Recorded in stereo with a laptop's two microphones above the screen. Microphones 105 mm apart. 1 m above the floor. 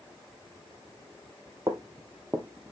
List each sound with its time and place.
1.7 s footsteps: 35° right (ahead or behind), 1.2 m; by 2.7 s 15° right (ahead or behind), 1.5 m